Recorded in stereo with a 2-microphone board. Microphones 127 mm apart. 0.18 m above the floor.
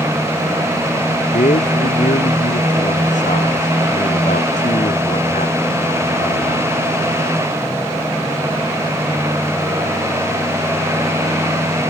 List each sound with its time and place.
1.3 s a man speaking: 85° left